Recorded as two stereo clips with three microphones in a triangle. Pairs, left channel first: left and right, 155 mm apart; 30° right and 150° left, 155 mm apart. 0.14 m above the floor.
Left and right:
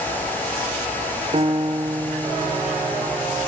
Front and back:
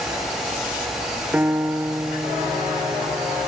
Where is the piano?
130° right, 1.6 m.